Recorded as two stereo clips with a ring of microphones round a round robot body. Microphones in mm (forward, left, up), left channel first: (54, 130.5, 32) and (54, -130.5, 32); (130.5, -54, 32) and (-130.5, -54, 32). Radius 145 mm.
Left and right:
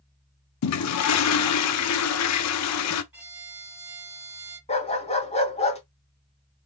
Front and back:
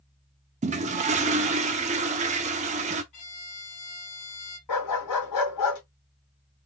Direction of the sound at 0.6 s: 115° left.